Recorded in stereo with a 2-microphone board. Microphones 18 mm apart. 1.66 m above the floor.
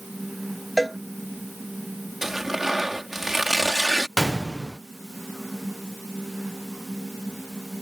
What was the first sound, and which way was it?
A cowbell, 5° right (ahead or behind).